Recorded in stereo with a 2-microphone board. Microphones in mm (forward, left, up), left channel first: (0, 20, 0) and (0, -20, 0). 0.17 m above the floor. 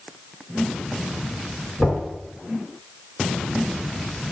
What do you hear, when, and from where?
1.8 s knocking: 5° right (ahead or behind), 1.8 m